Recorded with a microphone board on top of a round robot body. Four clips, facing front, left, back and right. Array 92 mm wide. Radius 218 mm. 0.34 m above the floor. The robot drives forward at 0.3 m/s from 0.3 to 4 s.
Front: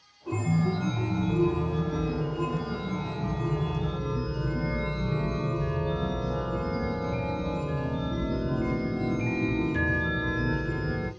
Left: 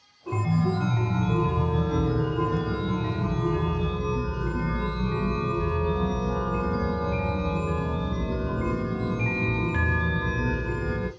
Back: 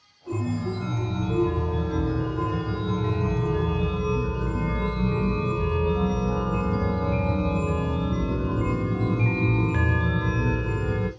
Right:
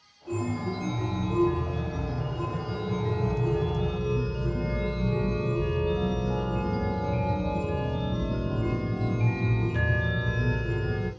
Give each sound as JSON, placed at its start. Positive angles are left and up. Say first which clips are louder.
{"t": 0.3, "sound": "a chime", "louder": "left 4 dB, front 1 dB", "azimuth_deg": 65, "distance_m": 0.7}